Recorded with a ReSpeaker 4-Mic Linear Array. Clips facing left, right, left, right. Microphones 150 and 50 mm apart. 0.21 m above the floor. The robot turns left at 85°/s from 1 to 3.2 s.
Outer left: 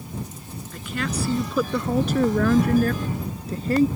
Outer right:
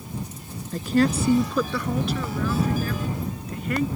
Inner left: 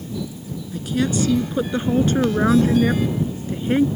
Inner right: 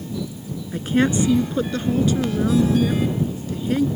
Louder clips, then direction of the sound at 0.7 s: Outer right 8 dB, inner right 3 dB; 140° right.